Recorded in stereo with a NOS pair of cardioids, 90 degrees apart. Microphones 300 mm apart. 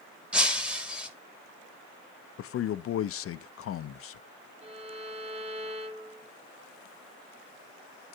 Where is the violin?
20° right, 1.7 m.